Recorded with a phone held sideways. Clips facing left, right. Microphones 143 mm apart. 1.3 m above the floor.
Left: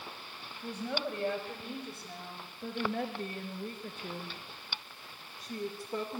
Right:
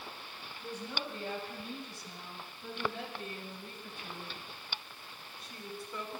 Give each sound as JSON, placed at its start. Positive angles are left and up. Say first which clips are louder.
{"t": 0.6, "sound": "a woman speaking", "louder": "left 5 dB", "side_deg": 65, "distance_m": 6.0}